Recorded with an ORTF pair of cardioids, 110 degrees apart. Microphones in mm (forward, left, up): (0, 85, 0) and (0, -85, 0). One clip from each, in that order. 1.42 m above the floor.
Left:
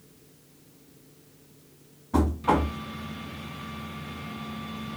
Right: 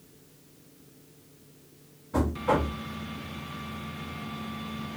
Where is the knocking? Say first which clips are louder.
Left 2 dB; 40° left, 1.8 m.